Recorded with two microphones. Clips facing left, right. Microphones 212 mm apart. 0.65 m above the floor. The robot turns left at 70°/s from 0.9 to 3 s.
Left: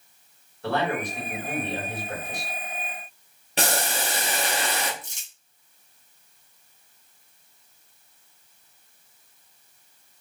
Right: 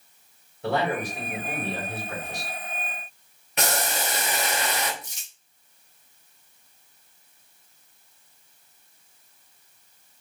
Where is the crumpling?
50° left (ahead or behind), 1.5 m.